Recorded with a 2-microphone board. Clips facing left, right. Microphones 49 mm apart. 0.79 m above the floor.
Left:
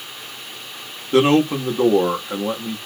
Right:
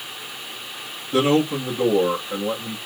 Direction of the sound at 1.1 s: 55° left (ahead or behind).